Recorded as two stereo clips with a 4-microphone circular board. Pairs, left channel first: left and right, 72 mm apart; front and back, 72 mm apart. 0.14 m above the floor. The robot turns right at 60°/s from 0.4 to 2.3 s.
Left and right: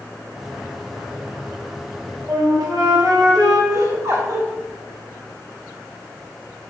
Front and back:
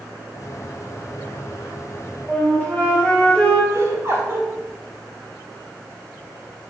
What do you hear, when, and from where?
2.3 s a flute: 70° right, 4 m
3.7 s laughter: 130° right, 4 m